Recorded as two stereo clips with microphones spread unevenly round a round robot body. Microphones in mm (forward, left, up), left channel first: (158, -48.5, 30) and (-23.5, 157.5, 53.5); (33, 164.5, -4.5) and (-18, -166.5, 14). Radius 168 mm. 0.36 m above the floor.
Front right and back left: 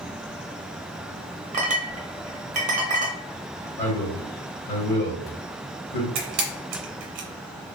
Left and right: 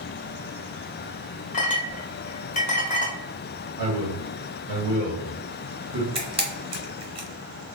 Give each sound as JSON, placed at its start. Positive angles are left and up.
{"t": 1.5, "sound": "a clink", "azimuth_deg": 95, "distance_m": 0.7}
{"t": 3.8, "sound": "a man speaking", "azimuth_deg": -70, "distance_m": 1.3}
{"t": 6.2, "sound": "a camera shutter", "azimuth_deg": -175, "distance_m": 0.6}